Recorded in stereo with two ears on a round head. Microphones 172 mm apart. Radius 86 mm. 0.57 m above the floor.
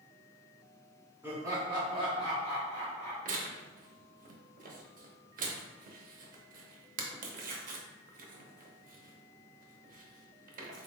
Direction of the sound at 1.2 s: 10° right (ahead or behind).